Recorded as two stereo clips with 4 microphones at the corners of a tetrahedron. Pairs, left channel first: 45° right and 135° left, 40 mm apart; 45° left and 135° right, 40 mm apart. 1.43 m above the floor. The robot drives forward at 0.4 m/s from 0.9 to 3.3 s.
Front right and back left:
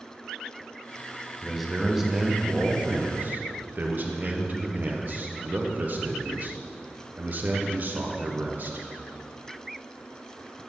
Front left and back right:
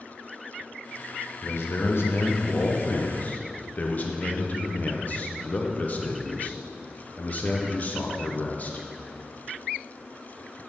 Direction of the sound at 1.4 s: 45° left.